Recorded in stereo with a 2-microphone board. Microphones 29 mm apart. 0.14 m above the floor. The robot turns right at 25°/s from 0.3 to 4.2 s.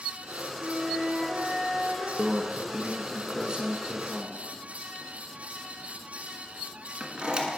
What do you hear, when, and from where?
0.6 s a flute: 50° left, 4 m; by 2.1 s 85° left, 4 m
2.2 s a microwave: 20° right (ahead or behind), 1.0 m; by 7.5 s 35° right (ahead or behind), 1.0 m